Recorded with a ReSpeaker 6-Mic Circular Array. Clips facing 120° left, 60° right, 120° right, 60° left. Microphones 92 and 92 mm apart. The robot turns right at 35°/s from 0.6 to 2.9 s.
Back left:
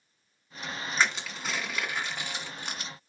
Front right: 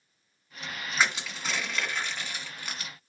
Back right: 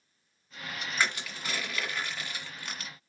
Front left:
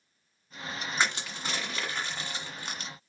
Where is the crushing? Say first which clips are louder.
Front right 1 dB, front left 1 dB; 20° left, 1.7 m; by 2.9 s 85° left, 1.7 m.